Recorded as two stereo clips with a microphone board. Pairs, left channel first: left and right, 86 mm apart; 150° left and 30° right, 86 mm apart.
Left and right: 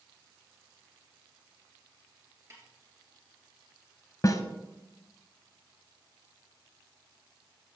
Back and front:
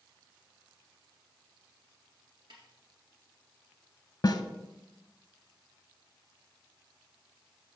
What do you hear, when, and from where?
2.5 s a snare drum: 40° right, 3 m
4.2 s a snare drum: 125° left, 0.7 m